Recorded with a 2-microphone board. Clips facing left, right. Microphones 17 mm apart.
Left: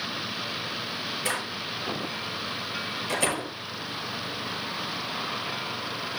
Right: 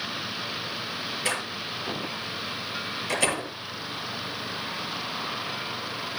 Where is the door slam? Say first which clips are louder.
Right 2 dB; 25° right (ahead or behind), 6.5 m.